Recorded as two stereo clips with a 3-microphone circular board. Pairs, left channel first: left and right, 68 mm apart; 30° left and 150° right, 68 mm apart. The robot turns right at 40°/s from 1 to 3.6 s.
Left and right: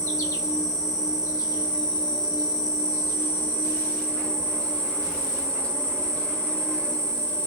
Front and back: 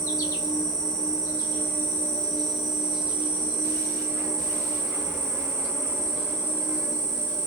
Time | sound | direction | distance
0.0 | an insect | 55° left | 0.8 m